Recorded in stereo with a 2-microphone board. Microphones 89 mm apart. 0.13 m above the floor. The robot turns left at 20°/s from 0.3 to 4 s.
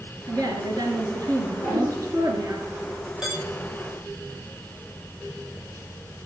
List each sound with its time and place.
0.3 s a woman speaking: 85° right, 2 m; by 2.6 s 130° right, 2 m
1.6 s a whoosh: 40° right (ahead or behind), 8 m; by 1.9 s 35° right (ahead or behind), 8 m
3.2 s dishes clattering: 5° right (ahead or behind), 8.5 m; by 3.4 s centre (ahead or behind), 8.5 m